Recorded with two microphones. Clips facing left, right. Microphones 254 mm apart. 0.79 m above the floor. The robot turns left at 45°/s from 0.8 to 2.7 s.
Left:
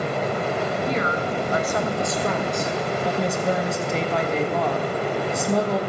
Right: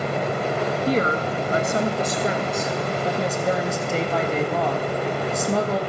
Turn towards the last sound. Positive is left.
turn(degrees=-175)